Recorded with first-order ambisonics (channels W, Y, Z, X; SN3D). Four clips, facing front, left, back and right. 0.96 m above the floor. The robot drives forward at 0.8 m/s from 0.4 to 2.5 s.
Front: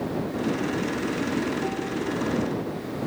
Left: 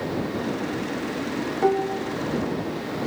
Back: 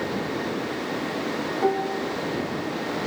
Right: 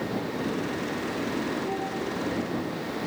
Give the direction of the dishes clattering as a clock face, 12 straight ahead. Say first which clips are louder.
Left 8 dB, back 5 dB; 8 o'clock.